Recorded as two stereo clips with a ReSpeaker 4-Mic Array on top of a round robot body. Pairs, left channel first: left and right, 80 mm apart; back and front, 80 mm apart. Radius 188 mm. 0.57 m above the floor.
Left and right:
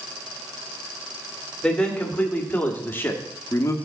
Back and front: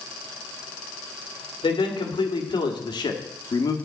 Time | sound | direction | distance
1.6 | a man speaking | 170° left | 2 m